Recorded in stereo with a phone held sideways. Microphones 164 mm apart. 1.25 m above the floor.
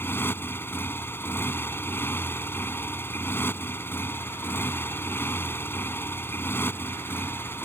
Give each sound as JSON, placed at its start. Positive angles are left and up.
{"t": 0.0, "sound": "a motorcycle", "side_deg": 15}